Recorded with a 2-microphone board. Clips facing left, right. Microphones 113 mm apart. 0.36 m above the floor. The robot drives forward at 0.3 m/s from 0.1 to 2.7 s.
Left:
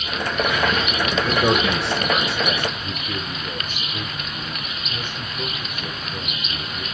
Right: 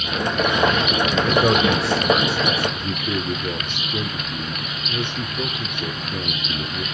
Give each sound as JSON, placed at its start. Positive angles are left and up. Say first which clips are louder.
{"t": 1.2, "sound": "a man speaking", "louder": "right 2 dB", "side_deg": 0, "distance_m": 1.3}
{"t": 2.7, "sound": "a man speaking", "louder": "right 4 dB", "side_deg": -70, "distance_m": 6.0}